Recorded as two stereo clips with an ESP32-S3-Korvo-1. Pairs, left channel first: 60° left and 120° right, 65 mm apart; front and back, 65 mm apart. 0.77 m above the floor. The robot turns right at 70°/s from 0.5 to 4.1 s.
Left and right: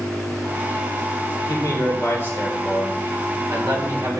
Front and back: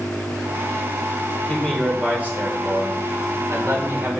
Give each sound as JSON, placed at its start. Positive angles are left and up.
{"t": 1.5, "sound": "a man speaking", "azimuth_deg": 65, "distance_m": 2.0}